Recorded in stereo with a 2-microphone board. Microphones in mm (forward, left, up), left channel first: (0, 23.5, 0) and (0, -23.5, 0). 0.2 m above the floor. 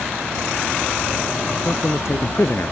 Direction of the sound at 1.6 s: 70° left (ahead or behind).